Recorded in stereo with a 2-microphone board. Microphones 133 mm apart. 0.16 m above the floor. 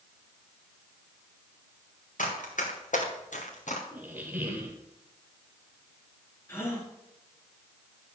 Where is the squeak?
15° right (ahead or behind), 1.7 m.